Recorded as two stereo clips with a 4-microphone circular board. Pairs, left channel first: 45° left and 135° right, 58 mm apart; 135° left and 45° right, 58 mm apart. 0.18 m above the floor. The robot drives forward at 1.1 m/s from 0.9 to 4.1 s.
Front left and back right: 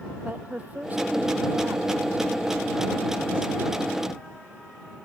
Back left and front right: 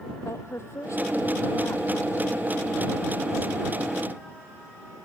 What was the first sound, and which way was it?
A woman speaking, 165° left.